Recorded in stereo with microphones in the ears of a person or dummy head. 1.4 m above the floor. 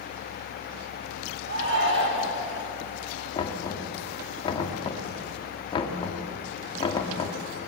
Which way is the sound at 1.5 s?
55° right (ahead or behind).